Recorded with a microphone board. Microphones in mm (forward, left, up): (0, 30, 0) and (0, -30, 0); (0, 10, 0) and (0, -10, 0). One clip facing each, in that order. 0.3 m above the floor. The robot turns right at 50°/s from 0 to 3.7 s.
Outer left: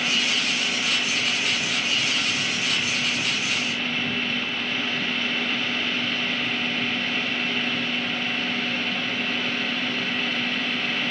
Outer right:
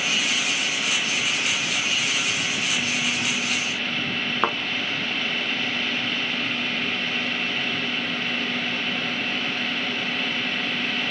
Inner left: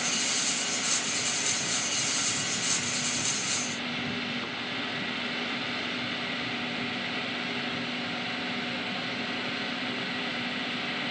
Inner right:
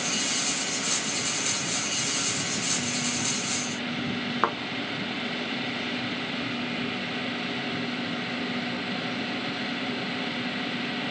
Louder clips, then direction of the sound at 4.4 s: Outer right 8 dB, inner right 10 dB; 75° right (ahead or behind).